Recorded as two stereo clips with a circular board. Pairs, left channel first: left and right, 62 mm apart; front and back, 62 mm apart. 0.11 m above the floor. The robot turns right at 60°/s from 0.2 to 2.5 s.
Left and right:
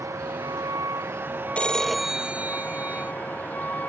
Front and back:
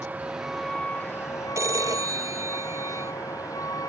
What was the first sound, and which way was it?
A vehicle, 110° right.